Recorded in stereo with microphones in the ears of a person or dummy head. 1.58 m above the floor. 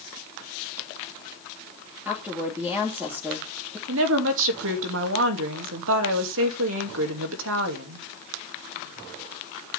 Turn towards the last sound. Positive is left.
turn(degrees=-80)